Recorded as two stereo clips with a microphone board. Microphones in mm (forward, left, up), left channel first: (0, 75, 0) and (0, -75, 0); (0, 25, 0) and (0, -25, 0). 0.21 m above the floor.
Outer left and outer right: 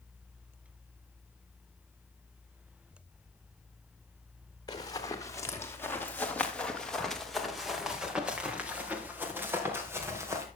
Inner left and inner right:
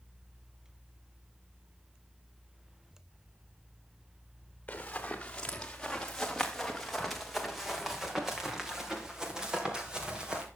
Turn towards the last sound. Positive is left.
turn(degrees=-20)  # may be behind; listen again after turning